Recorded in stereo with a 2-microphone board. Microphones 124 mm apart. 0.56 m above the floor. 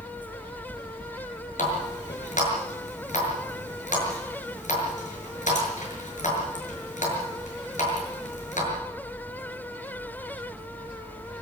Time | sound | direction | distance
1.6 | a running tap | 85° left | 7 m